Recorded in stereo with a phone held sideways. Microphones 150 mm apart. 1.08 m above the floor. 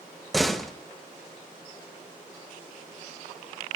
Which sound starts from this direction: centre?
A door slam, at 0.3 s.